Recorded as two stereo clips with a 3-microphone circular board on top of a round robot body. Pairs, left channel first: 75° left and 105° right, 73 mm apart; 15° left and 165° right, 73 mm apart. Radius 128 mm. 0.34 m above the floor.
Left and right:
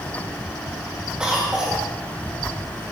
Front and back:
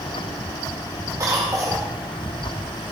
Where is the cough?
Straight behind, 1.9 m.